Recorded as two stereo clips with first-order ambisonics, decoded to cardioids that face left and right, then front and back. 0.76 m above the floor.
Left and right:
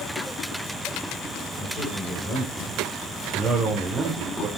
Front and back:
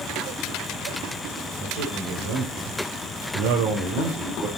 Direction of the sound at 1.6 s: 155° left.